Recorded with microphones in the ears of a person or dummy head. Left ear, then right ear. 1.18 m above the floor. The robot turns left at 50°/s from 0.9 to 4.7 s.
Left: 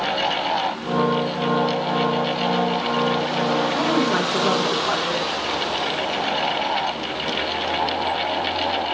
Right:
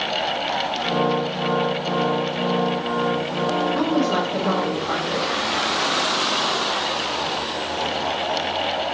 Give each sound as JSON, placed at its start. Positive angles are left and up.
{"t": 3.8, "sound": "a woman speaking", "azimuth_deg": 170, "distance_m": 0.9}